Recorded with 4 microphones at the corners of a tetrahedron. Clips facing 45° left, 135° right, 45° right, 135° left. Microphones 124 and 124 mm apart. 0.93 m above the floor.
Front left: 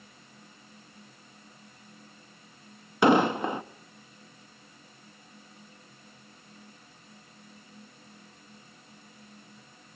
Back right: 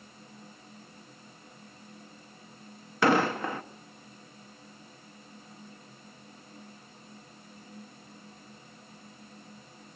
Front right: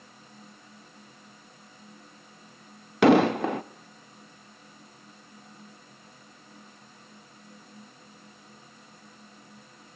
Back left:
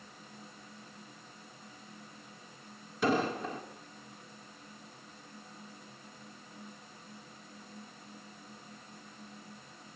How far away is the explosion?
About 0.7 m.